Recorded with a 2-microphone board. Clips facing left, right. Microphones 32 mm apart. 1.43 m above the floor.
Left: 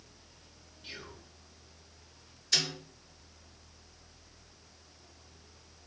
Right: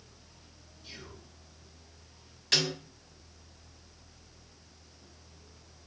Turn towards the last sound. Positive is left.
turn(degrees=-90)